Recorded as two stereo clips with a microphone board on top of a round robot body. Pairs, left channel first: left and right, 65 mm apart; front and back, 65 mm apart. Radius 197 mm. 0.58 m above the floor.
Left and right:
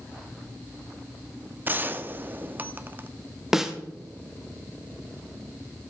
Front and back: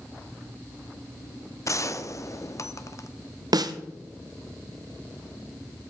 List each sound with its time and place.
1.6 s a gunshot: 35° right, 0.9 m
3.5 s a snare drum: 175° right, 0.7 m